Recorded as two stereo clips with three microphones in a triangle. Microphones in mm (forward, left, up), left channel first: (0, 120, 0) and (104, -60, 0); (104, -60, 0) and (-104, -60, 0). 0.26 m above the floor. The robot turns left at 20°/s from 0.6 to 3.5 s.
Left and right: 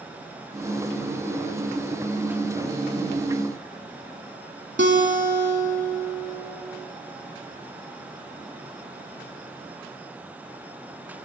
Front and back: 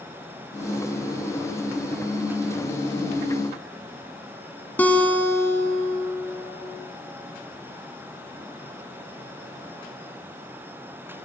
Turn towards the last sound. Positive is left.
turn(degrees=-80)